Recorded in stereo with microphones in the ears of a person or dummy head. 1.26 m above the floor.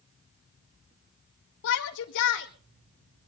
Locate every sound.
1.6 s a shout: 60° left (ahead or behind), 1.7 m